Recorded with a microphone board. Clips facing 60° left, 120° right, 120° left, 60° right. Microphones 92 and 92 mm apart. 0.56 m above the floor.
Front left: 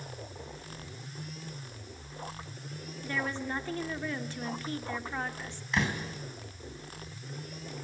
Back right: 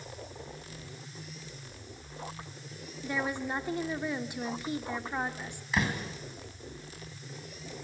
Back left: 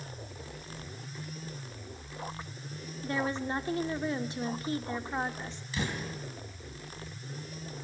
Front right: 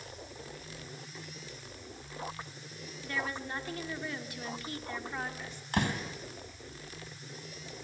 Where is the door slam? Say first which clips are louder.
Even, front right 4 dB; 35° right, 3.5 m.